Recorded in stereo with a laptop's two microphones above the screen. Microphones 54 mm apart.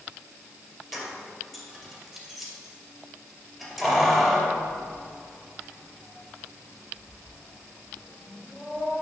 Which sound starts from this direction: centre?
Keys jangling, at 0.9 s.